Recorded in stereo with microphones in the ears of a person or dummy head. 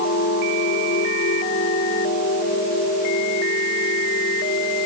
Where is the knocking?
I don't hear knocking.